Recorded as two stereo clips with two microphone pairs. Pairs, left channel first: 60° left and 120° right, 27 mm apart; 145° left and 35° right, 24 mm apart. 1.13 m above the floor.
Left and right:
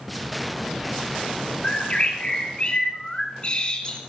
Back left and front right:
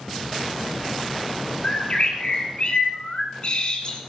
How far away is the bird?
About 1.8 m.